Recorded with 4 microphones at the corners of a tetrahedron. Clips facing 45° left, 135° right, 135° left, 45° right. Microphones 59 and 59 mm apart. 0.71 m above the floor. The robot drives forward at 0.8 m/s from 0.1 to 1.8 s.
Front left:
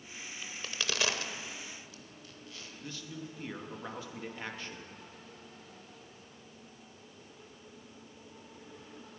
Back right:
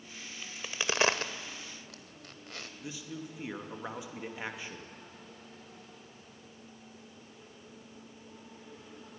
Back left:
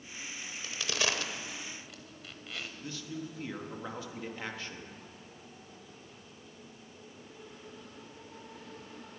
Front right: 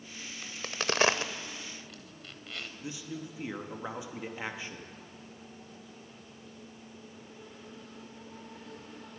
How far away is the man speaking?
About 1.0 m.